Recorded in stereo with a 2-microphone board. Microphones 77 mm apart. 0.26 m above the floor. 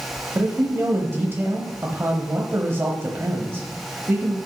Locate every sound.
0.3 s a man speaking: 30° right (ahead or behind), 1.0 m